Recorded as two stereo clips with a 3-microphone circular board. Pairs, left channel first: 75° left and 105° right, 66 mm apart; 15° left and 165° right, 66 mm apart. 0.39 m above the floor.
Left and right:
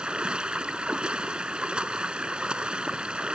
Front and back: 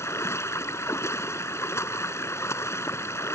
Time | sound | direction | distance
0.0 | running water | 30° right | ?